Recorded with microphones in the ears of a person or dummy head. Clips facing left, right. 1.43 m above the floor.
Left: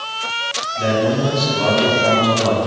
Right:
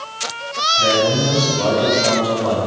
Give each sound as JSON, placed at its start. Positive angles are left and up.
{"t": 0.8, "sound": "a man speaking", "side_deg": 65, "distance_m": 2.5}